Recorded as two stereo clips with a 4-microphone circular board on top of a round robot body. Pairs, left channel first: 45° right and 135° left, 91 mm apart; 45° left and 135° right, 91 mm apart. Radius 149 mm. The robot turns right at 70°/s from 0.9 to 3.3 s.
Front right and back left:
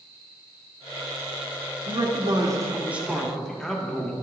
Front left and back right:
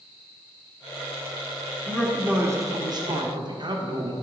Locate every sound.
1.9 s a man speaking: 130° left, 1.6 m; by 4.1 s 130° right, 1.6 m